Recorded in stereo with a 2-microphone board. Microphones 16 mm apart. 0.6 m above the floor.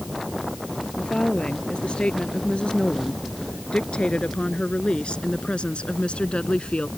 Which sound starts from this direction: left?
A woman speaking, at 1.0 s.